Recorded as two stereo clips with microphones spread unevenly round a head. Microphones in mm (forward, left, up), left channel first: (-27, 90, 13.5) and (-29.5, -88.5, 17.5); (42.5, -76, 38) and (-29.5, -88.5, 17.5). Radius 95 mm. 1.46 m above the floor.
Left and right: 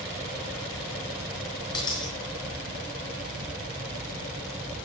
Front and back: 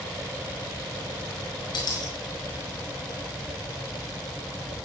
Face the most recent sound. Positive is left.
turn(degrees=20)